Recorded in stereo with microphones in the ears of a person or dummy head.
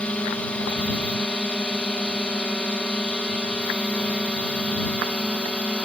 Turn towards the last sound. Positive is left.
turn(degrees=5)  # may be behind; listen again after turning